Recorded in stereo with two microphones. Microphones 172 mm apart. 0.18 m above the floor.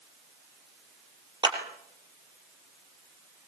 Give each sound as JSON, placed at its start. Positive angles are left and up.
{"t": 1.4, "sound": "a clap", "side_deg": -25, "distance_m": 4.0}